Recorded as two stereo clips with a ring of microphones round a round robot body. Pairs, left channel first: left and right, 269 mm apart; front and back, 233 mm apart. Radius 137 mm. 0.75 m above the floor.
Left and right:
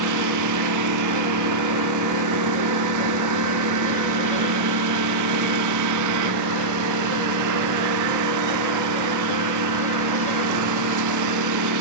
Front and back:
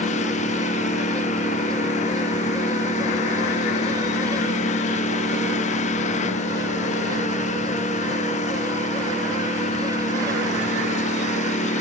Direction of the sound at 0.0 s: 65° right.